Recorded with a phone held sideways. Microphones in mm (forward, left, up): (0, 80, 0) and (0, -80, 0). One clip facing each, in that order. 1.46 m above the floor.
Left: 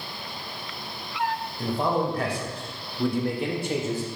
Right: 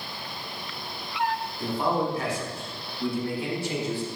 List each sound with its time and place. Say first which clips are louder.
1.6 s a man speaking: left 1 dB; 50° left (ahead or behind), 1.4 m; by 4.1 s 40° left (ahead or behind), 0.9 m